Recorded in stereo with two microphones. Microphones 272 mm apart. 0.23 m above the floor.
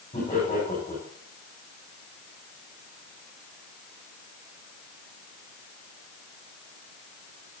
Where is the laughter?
30° left (ahead or behind), 8.5 m.